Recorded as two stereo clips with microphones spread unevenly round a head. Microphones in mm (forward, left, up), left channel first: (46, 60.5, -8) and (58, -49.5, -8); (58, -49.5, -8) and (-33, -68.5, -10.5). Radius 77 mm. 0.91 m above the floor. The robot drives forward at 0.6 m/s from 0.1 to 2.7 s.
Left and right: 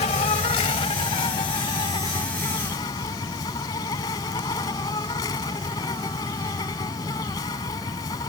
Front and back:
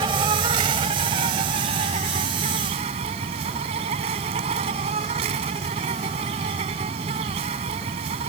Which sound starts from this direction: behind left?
An insect, at 0.0 s.